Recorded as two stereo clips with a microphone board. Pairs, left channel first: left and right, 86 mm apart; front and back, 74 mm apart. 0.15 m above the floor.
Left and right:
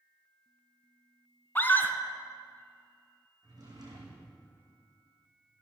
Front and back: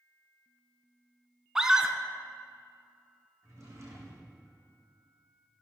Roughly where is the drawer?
Behind right.